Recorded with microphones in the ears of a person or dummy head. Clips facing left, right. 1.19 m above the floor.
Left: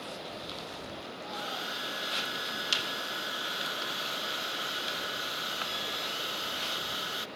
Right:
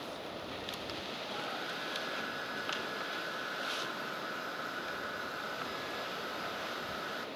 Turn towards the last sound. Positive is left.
turn(degrees=45)  # may be behind; listen again after turning